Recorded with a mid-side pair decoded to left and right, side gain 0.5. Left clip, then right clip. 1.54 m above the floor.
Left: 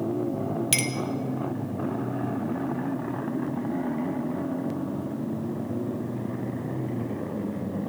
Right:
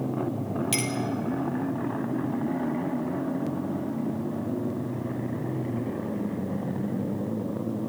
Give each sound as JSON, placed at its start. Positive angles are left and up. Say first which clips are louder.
{"t": 0.7, "sound": "a clink", "louder": "left 3 dB", "azimuth_deg": 40, "distance_m": 2.0}